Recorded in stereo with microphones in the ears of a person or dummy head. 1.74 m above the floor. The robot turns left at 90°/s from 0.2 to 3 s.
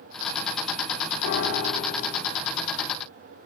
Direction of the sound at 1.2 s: 110° left.